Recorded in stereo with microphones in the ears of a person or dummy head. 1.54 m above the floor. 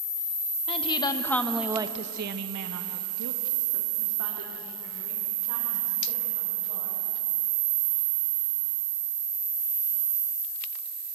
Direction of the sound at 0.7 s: 35° left (ahead or behind).